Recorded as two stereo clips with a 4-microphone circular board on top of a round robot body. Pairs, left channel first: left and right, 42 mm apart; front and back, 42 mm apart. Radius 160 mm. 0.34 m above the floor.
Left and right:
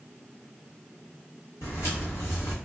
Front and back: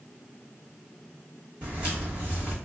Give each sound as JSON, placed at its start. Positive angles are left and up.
{"t": 1.6, "sound": "footsteps", "azimuth_deg": 115, "distance_m": 1.0}